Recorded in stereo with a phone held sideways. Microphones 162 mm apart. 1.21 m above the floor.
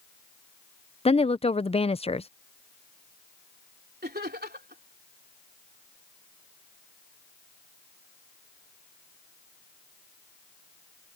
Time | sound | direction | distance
1.1 | a woman speaking | 35° left (ahead or behind) | ?
4.0 | laughter | 80° right | ?